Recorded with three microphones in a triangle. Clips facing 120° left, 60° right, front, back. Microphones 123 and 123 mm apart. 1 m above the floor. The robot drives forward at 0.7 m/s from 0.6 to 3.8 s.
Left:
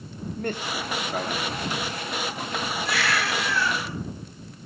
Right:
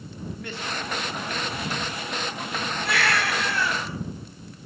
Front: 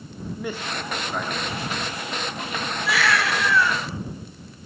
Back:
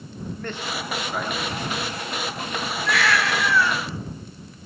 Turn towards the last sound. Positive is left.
turn(degrees=-95)